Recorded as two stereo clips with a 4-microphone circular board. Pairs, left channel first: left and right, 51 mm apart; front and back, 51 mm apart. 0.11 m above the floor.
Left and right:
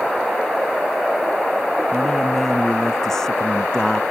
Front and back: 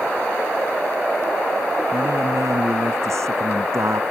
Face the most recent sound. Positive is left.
turn(degrees=170)